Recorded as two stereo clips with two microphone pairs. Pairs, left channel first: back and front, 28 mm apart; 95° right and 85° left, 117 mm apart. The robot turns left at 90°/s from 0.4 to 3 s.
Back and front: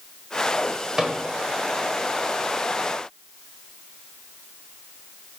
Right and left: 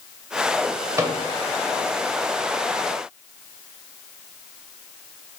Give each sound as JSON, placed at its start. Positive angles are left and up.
{"t": 1.0, "sound": "a microwave", "azimuth_deg": 65, "distance_m": 0.7}